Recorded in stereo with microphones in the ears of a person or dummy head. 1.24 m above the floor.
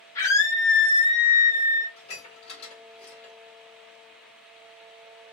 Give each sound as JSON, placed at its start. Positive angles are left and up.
{"t": 0.1, "sound": "a scream", "side_deg": 15, "distance_m": 1.0}
{"t": 2.0, "sound": "dishes clattering", "side_deg": 35, "distance_m": 1.4}